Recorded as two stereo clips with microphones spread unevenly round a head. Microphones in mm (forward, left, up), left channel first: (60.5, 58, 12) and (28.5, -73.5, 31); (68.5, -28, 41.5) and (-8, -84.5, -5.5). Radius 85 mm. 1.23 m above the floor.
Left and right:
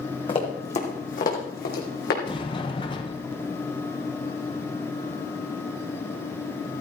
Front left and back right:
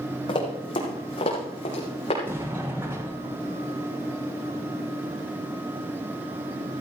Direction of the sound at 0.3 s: 20° left.